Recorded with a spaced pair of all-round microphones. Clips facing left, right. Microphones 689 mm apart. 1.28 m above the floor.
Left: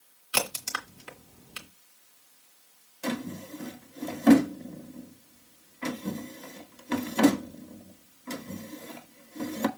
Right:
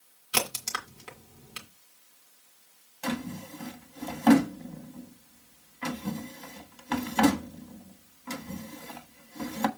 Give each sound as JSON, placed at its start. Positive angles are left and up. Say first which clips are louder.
{"t": 0.3, "sound": "a crack", "louder": "even", "side_deg": -55, "distance_m": 2.0}
{"t": 3.0, "sound": "a drawer", "louder": "left 1 dB", "side_deg": -20, "distance_m": 1.2}